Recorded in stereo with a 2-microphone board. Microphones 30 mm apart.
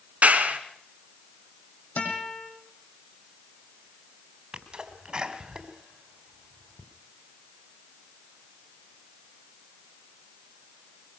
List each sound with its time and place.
0.2 s a clap: 60° right (ahead or behind), 3 m
2.0 s a guitar: 85° left, 7 m
4.5 s a sneeze: 30° right (ahead or behind), 2.5 m